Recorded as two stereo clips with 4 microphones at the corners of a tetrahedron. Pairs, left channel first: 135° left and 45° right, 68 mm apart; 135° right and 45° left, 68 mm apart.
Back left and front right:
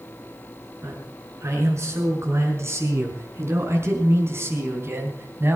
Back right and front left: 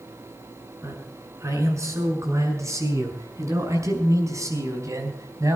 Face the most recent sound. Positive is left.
turn(degrees=10)